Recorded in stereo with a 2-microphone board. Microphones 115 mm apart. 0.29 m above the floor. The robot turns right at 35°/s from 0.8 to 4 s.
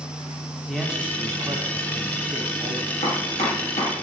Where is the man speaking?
175° right, 2 m; by 2.9 s 105° right, 2 m.